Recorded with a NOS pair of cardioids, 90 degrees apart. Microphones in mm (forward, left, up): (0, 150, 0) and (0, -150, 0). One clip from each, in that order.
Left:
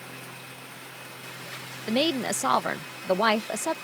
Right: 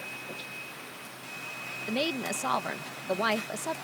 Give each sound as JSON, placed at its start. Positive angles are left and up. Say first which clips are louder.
{"t": 1.9, "sound": "a woman speaking", "louder": "left 6 dB", "azimuth_deg": 25}